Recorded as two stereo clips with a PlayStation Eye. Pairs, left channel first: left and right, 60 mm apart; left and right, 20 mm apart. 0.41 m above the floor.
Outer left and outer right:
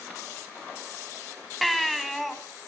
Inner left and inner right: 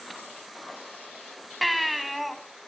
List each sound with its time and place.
1.6 s a baby crying: centre (ahead or behind), 2.5 m